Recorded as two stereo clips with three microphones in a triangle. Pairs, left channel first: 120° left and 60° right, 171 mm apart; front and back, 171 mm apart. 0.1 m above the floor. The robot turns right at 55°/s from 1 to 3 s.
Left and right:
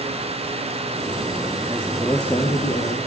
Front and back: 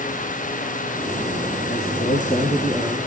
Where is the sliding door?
No sliding door in this recording.